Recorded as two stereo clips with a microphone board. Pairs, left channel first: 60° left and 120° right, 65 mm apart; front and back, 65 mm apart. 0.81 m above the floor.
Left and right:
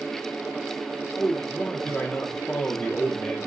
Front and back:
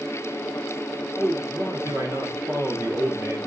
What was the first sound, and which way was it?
A man speaking, 140° left.